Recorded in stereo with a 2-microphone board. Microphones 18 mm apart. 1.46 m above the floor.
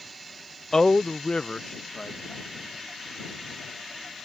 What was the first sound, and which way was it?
A man speaking, 30° left (ahead or behind).